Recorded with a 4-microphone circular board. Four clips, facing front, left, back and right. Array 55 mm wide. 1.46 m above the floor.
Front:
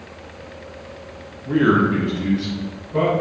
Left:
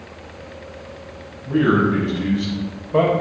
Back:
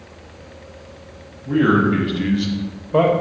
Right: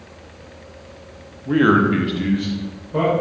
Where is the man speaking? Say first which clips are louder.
Right 2 dB, back 1 dB; 80° right, 0.8 m; by 3.1 s 155° left, 1.0 m.